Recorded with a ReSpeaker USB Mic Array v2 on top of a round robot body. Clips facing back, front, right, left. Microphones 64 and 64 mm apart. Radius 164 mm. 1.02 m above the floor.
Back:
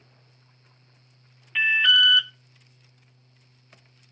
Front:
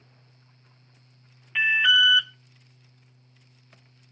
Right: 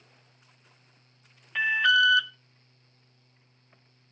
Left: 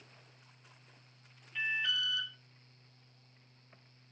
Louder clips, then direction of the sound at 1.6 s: Even, right 13 dB; 80° right.